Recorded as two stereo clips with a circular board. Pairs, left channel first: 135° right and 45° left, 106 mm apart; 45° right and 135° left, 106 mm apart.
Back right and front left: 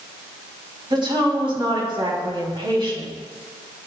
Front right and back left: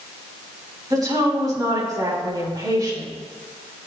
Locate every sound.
0.9 s a woman speaking: 80° left, 4 m